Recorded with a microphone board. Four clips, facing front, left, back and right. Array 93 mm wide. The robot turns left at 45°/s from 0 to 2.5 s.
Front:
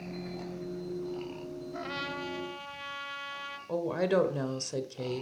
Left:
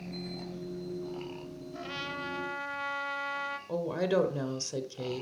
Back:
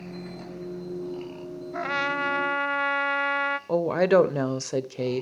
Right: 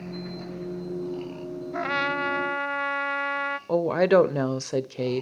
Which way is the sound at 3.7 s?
130° right.